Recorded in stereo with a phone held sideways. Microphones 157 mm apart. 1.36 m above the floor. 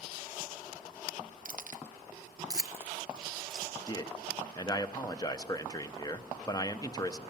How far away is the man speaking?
About 0.8 m.